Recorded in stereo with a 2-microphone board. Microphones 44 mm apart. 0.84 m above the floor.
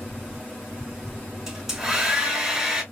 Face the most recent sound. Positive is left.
turn(degrees=-10)  # may be behind; listen again after turning